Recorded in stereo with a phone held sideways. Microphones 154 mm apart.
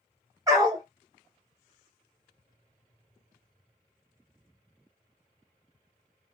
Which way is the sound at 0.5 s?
20° right (ahead or behind).